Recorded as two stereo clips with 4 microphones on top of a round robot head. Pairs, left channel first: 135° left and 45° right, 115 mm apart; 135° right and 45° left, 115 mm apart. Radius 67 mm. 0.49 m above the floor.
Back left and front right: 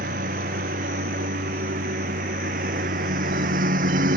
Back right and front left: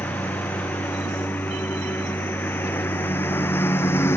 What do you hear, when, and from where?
0.0 s a lawn mower: 60° right; by 4.2 s 65° right